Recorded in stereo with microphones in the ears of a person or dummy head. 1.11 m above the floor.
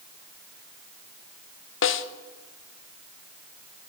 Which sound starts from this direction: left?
A snare drum, at 1.8 s.